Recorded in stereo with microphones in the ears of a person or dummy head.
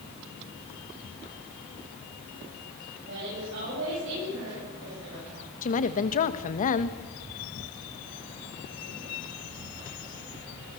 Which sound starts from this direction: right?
A woman speaking, at 3.1 s.